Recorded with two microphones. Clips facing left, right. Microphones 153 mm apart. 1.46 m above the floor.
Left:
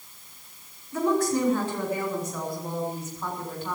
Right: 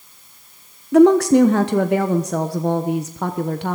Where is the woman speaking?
75° right (ahead or behind), 1.0 m.